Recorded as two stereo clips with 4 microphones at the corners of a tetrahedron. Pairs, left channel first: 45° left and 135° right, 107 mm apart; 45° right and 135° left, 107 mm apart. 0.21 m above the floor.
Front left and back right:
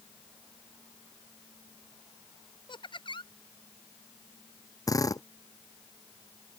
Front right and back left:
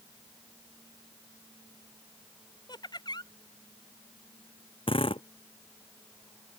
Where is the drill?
10° right.